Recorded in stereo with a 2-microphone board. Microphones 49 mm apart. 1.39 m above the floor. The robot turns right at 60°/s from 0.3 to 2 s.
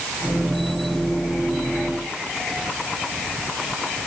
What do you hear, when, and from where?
Only background noise.